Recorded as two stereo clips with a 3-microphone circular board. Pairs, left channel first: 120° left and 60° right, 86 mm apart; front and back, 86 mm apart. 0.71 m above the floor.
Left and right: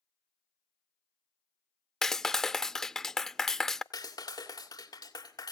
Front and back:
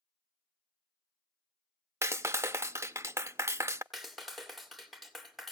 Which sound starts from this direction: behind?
A clap, at 2.0 s.